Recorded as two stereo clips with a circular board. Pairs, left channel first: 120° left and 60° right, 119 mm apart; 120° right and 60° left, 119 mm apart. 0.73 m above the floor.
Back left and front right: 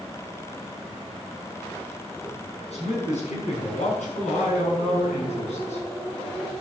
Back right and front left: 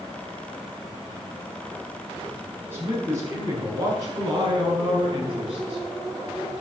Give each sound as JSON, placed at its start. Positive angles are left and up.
{"t": 2.7, "sound": "a man speaking", "azimuth_deg": 130, "distance_m": 6.0}